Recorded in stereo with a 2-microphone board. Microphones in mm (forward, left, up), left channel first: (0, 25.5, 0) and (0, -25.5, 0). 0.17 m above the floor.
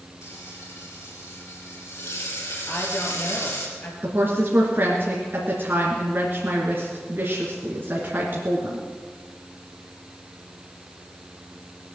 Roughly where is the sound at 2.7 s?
Left.